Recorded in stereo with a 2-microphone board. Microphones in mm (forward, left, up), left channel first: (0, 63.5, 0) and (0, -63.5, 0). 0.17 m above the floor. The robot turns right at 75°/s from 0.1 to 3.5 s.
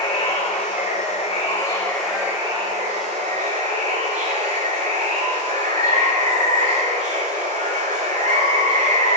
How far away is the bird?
No bird in this recording.